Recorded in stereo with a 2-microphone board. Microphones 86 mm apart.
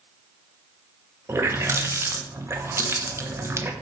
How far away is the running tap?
About 0.7 m.